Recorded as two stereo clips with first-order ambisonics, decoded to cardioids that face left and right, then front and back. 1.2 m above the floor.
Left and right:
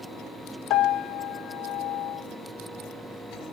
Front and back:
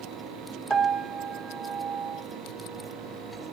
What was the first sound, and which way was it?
A piano, 95° left.